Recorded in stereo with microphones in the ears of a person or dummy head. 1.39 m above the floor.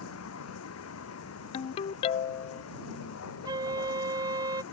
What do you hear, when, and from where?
0.0 s a vehicle: 90° left
1.5 s a ringtone: 30° left (ahead or behind)
3.5 s a flute: 20° right (ahead or behind)